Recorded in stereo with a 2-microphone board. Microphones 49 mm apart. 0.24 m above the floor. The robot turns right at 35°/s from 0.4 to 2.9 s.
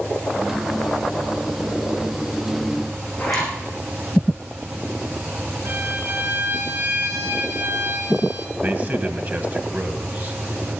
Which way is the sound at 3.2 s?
Centre (ahead or behind).